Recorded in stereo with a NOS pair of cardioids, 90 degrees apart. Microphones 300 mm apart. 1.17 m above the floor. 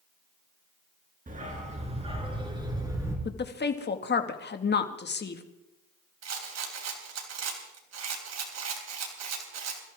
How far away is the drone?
I don't hear a drone.